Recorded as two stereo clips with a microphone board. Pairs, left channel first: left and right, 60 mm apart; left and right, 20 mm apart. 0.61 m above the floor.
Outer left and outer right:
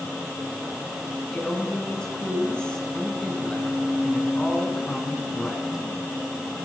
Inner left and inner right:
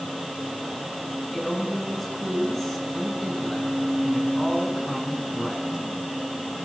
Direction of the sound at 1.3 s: 15° left (ahead or behind).